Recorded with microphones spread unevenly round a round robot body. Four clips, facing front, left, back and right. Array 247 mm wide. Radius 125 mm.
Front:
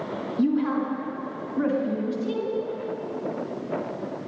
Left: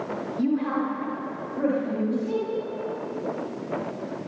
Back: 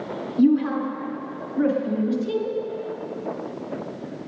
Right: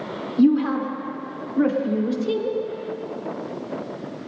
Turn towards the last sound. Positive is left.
turn(degrees=-100)